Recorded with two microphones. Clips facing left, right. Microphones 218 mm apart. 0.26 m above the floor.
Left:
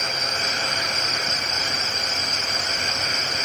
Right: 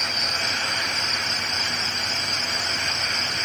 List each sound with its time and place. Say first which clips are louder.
0.0 s an insect: left 3 dB; 40° right (ahead or behind), 1.6 m